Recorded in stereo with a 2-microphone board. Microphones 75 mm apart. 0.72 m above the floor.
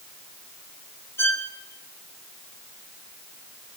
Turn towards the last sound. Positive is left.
turn(degrees=30)  # may be behind; listen again after turning